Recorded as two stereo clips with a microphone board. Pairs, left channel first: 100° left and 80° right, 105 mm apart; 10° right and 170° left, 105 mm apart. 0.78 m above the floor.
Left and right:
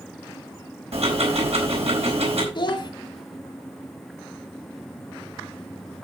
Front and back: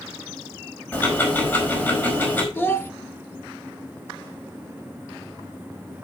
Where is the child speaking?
60° left, 1.5 m.